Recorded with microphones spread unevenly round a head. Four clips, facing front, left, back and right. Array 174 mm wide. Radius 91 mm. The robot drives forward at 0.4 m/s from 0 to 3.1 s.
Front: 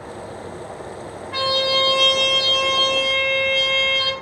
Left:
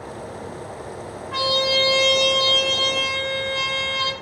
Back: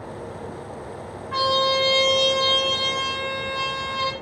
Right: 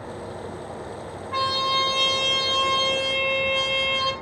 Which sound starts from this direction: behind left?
A trumpet, at 1.3 s.